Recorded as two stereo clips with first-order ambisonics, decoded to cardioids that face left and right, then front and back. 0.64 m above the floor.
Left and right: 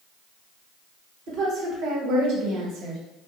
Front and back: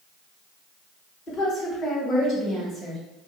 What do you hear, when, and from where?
1.3 s a woman speaking: 65° right, 1.8 m; by 3.0 s 90° right, 1.1 m